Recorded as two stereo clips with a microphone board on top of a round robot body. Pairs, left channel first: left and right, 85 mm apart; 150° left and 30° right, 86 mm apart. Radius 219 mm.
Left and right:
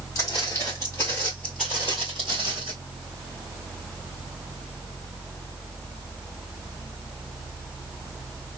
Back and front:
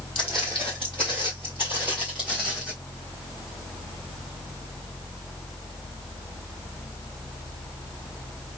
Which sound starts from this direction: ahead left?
Footsteps, at 0.1 s.